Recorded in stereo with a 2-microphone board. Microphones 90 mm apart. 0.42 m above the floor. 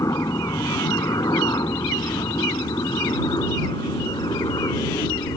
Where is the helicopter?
40° left (ahead or behind); by 5.4 s 55° left (ahead or behind).